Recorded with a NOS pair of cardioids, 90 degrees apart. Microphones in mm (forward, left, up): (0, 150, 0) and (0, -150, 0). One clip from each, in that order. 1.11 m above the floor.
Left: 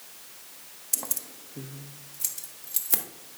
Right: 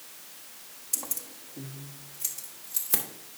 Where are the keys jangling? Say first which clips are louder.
Left 2 dB; 15° left, 0.6 m; by 3.0 s 40° left, 2 m.